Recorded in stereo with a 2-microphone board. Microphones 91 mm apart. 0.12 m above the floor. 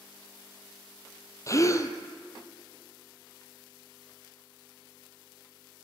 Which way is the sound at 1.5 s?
35° left (ahead or behind).